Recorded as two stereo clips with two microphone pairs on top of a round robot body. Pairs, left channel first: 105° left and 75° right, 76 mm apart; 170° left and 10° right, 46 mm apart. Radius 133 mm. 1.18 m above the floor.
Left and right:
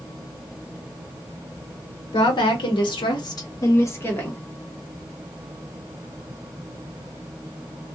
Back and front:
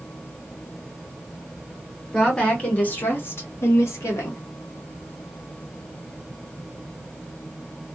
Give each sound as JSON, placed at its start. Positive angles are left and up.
{"t": 2.1, "sound": "a woman speaking", "azimuth_deg": 95, "distance_m": 1.2}